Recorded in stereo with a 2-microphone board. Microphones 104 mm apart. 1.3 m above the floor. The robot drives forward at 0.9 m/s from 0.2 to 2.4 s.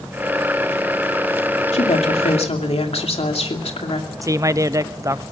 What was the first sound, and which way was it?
A woman speaking, 90° left.